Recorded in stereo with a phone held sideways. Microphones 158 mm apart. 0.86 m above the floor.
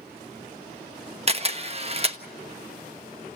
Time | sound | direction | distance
1.3 | a camera shutter | 40° right (ahead or behind) | 1.0 m